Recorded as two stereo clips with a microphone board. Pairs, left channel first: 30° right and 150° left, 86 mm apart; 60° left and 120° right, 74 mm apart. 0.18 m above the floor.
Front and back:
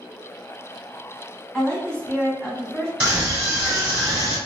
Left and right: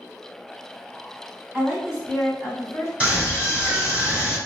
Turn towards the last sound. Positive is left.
turn(degrees=-160)